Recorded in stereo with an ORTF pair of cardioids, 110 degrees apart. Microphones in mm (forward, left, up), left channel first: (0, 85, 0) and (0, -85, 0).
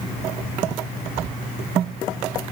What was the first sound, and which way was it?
Only background noise.